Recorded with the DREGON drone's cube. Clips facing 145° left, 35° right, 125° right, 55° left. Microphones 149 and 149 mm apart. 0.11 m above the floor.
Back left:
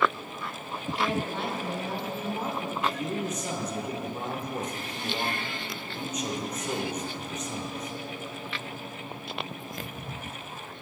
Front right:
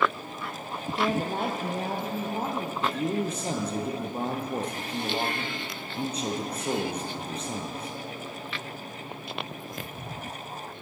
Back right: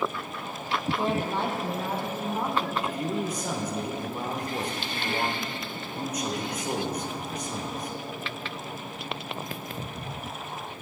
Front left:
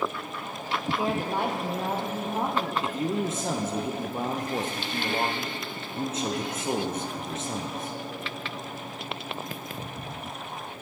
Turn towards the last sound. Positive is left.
turn(degrees=5)